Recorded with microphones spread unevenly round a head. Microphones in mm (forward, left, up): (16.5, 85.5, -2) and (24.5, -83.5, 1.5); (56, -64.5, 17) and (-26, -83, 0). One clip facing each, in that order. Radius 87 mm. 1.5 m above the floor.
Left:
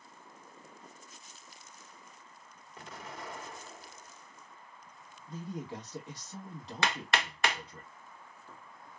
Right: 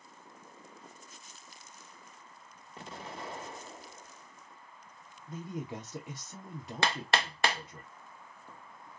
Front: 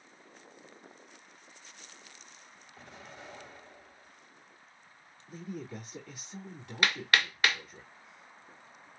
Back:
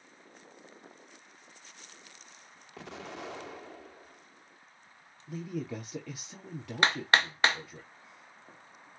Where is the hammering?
110° right, 0.9 m.